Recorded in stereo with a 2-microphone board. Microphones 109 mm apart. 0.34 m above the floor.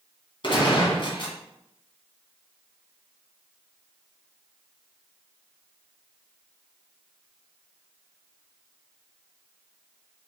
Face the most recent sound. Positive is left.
turn(degrees=50)  # may be behind; listen again after turning